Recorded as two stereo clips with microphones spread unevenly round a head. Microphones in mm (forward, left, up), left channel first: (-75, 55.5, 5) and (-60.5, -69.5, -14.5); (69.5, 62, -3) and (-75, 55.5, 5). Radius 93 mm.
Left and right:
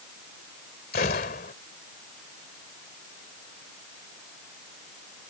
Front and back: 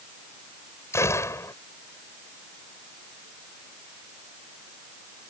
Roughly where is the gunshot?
Left.